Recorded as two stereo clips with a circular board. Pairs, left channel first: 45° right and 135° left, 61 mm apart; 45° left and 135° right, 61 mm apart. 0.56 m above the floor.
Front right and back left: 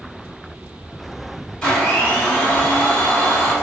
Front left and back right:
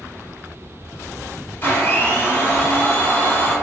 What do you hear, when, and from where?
1.6 s a blender: 25° left, 0.9 m